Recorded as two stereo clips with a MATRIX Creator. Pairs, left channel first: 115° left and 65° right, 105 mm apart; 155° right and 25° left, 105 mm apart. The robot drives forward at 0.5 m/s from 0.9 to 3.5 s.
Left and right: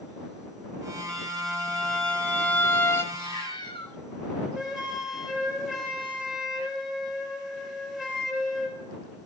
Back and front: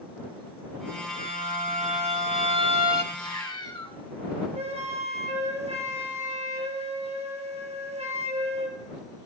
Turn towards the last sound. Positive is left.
turn(degrees=20)